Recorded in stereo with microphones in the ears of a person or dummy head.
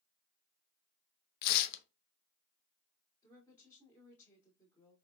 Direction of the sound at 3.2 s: 15° left (ahead or behind).